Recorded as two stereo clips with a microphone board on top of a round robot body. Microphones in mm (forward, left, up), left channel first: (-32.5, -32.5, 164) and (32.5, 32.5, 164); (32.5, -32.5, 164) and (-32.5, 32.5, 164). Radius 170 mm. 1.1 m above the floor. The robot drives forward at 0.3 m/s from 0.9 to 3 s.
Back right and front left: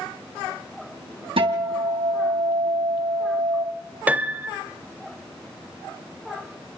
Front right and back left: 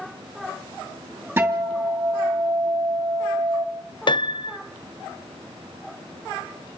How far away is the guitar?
About 2.5 m.